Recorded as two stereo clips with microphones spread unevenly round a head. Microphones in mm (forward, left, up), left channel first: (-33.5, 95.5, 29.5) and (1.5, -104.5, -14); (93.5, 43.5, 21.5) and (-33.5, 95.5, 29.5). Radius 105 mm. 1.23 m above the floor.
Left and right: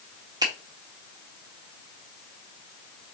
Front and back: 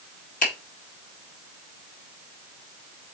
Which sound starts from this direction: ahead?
A finger snap, at 0.4 s.